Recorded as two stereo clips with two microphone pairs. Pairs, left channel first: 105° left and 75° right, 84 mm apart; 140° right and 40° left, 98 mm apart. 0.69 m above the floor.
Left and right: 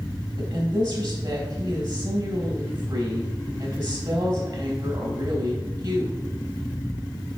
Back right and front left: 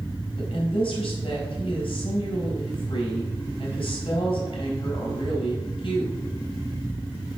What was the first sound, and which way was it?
A woman speaking, 110° right.